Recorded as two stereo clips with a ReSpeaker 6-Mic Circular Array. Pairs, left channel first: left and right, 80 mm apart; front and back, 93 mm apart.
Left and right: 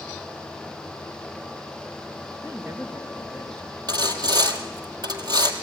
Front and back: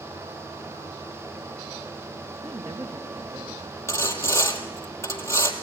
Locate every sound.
2.4 s a woman speaking: 150° right, 3.5 m
3.9 s sawing: 60° right, 1.9 m